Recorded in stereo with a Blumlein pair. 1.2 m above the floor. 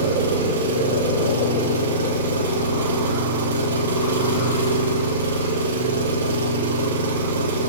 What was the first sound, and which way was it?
An engine running, 65° right.